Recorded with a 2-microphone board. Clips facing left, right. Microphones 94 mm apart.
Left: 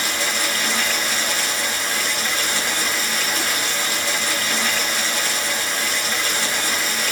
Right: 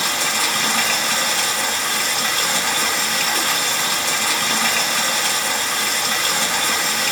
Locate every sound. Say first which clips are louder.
0.0 s running water: right 2 dB; 60° right (ahead or behind), 2.5 m